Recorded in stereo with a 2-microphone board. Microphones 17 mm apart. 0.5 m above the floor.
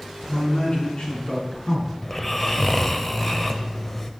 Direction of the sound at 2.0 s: 15° left (ahead or behind).